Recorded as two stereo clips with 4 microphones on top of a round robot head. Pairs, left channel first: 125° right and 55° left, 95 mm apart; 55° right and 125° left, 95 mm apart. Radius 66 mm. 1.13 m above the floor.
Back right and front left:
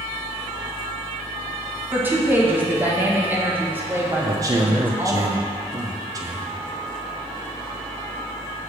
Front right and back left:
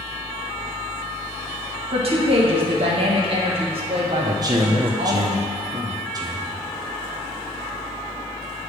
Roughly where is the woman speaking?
Behind left.